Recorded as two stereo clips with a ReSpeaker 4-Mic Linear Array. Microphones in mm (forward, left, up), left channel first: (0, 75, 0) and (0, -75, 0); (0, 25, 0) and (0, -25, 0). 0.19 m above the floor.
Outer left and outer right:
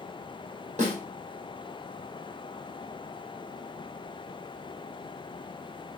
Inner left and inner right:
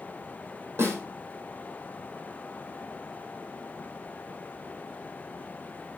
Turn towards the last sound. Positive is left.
turn(degrees=-50)  # may be behind; listen again after turning